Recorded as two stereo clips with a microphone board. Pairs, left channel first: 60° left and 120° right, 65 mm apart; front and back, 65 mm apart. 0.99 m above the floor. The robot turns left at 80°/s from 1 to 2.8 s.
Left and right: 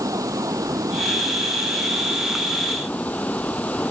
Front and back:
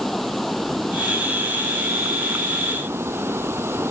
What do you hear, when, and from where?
0.0 s running water: 90° right; by 3.9 s 130° left